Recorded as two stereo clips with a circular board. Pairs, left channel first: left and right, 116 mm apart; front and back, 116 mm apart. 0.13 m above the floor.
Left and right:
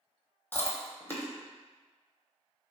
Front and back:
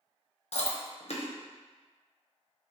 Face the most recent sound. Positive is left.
turn(degrees=15)